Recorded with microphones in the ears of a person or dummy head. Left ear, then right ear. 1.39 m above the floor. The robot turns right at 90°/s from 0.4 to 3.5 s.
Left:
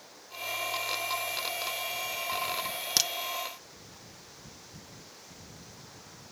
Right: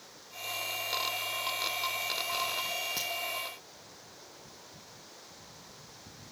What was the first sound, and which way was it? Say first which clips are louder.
A crack: left 8 dB; 45° left (ahead or behind).